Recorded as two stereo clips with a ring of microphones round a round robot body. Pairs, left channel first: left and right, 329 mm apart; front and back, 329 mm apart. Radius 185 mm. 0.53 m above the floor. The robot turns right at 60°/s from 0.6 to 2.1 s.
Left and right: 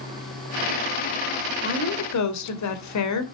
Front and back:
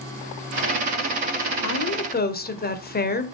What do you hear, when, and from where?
1.6 s a woman speaking: 30° left, 2.5 m; by 3.2 s 60° left, 2.5 m